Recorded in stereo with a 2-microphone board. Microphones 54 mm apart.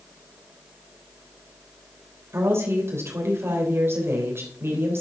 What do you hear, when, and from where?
2.3 s a woman speaking: 50° right (ahead or behind), 3 m